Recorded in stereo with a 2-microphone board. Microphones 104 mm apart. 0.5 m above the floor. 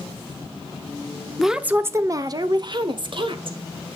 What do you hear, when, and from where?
1.4 s a woman speaking: centre (ahead or behind), 0.7 m; by 3.6 s 55° right (ahead or behind), 1.8 m